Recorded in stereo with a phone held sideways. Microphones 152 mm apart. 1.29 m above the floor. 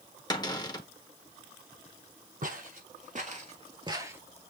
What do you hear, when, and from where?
0.3 s a cupboard door: 25° left (ahead or behind), 1.1 m
2.4 s footsteps: 60° right (ahead or behind), 2.5 m; by 4.2 s 15° right (ahead or behind), 1.7 m